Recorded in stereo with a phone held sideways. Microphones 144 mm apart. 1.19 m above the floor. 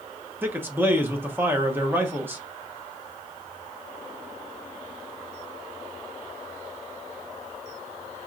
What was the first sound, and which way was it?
A man speaking, 15° right (ahead or behind).